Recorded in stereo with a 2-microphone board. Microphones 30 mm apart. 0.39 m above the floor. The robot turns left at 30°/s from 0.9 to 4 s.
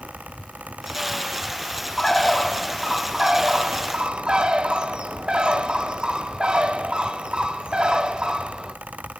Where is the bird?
20° left, 0.6 m; by 8.8 s 45° right, 0.6 m.